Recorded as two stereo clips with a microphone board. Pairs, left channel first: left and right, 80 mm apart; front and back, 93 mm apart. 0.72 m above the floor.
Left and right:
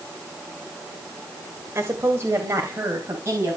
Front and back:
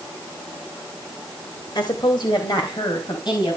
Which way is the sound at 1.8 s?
35° right.